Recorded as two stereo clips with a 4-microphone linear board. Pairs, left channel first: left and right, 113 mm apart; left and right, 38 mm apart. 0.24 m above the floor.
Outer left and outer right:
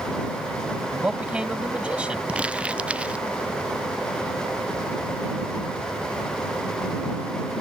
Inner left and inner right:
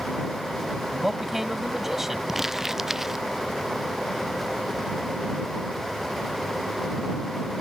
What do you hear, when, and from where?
0.9 s a man speaking: 10° right (ahead or behind)
2.3 s crumpling: 10° right (ahead or behind)